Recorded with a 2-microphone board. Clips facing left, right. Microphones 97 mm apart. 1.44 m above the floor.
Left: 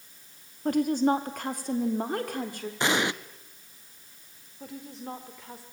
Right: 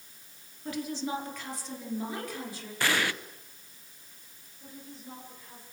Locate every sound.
0.7 s a woman speaking: 50° left (ahead or behind), 2.5 m; by 2.7 s 55° left (ahead or behind), 4.5 m
2.8 s an explosion: 20° left (ahead or behind), 0.8 m
4.6 s a woman speaking: 85° left, 4 m